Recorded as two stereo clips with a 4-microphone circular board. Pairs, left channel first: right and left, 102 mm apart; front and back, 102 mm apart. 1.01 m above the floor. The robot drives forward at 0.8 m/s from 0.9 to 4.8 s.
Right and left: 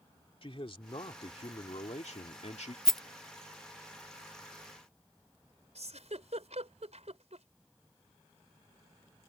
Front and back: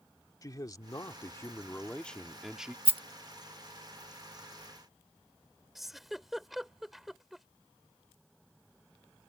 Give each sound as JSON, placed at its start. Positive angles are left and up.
{"t": 0.4, "sound": "a man speaking", "azimuth_deg": -55}
{"t": 2.9, "sound": "a rattle", "azimuth_deg": -175}
{"t": 5.8, "sound": "a giggle", "azimuth_deg": 95}